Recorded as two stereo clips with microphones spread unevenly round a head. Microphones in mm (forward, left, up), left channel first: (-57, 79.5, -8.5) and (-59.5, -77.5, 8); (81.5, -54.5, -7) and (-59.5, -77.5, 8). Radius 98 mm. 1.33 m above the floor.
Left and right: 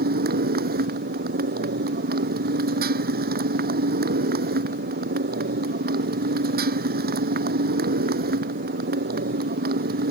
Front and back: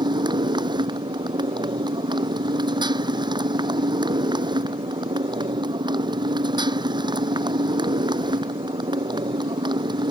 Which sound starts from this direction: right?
A motorcycle, at 0.0 s.